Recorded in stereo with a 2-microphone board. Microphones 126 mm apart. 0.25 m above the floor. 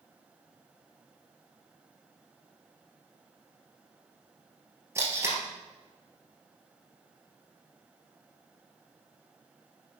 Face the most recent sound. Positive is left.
turn(degrees=-25)  # may be behind; listen again after turning